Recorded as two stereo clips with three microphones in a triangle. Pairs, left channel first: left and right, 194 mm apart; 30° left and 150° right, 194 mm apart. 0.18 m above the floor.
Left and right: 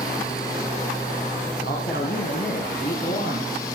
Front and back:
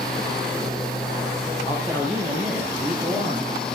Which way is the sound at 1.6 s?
125° left.